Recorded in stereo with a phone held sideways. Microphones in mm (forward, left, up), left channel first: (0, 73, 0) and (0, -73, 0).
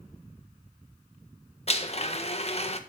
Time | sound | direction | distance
1.7 | a blender | 45° left (ahead or behind) | 1.5 m